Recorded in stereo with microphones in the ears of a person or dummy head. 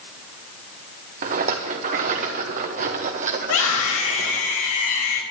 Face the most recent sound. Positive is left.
turn(degrees=70)  # may be behind; listen again after turning